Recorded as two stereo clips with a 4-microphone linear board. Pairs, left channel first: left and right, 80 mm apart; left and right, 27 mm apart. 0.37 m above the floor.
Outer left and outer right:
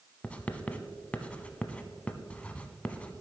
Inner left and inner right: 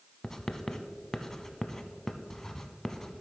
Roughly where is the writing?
Centre.